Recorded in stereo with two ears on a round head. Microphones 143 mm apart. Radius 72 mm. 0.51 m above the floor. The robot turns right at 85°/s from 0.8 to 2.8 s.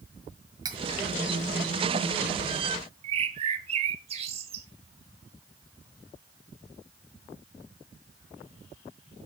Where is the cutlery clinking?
25° right (ahead or behind), 1.6 m.